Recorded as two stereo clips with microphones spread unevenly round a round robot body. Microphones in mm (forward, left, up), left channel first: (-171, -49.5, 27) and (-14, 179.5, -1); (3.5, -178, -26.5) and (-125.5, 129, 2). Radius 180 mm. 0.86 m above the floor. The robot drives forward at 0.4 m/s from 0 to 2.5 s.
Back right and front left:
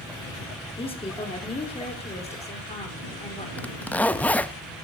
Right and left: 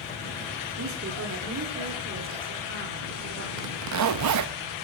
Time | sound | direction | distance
0.8 | a woman speaking | 165° left | 2.5 m
3.6 | a zipper | 145° left | 0.9 m